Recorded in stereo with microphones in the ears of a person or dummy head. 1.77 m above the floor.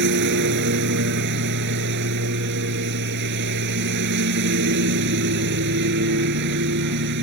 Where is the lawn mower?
60° right (ahead or behind).